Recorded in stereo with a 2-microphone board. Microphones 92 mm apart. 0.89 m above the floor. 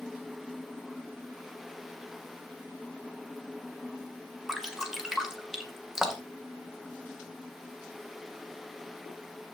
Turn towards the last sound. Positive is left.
turn(degrees=-5)  # may be behind; listen again after turning